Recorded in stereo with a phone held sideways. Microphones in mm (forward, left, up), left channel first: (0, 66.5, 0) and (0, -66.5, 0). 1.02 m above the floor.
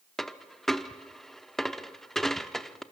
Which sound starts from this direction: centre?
A dropped coin, at 0.2 s.